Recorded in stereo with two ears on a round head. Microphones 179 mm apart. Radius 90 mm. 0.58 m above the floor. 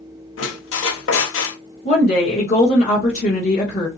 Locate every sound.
0.4 s a squeak: 75° left (ahead or behind), 1.0 m
1.9 s a woman speaking: 35° left (ahead or behind), 1.1 m